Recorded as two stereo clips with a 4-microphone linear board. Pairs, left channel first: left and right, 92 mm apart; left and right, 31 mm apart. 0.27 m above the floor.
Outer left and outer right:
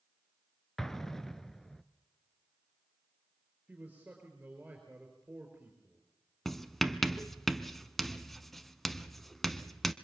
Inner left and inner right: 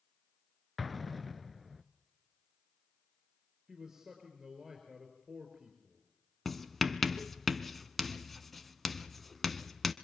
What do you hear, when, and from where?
0.8 s an explosion: 5° left (ahead or behind), 0.9 m
3.7 s a man speaking: 15° right (ahead or behind), 5 m
6.5 s writing: centre (ahead or behind), 1.1 m